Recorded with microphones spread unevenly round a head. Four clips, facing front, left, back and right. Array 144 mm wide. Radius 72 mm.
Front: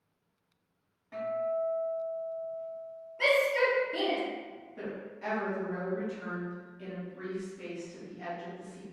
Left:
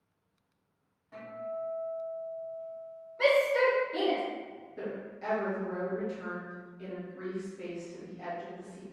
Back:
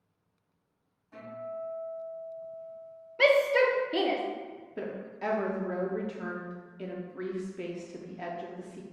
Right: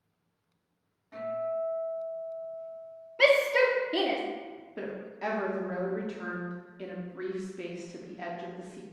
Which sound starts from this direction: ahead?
A guitar, at 1.1 s.